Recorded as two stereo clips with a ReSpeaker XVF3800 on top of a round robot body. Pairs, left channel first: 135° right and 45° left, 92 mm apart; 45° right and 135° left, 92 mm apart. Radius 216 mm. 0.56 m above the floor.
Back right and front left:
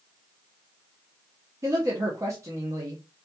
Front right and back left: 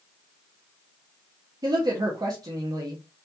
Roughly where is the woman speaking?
Left.